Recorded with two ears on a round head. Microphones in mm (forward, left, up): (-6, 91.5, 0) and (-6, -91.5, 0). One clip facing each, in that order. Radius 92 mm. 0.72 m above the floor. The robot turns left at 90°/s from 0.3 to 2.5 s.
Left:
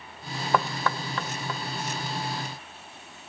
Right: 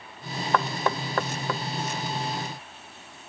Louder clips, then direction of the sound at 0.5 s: Right 1 dB; 5° left (ahead or behind).